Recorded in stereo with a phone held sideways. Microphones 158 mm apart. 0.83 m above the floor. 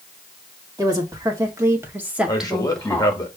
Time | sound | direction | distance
0.8 | a woman speaking | 25° right (ahead or behind) | 1.1 m
2.3 | a man speaking | 25° left (ahead or behind) | 1.0 m